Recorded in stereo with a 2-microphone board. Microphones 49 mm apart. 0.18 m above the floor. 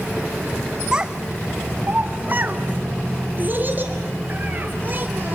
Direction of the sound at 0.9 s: 15° right (ahead or behind).